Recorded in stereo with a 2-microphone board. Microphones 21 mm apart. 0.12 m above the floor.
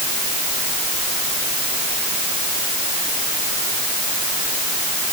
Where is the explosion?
I don't hear an explosion.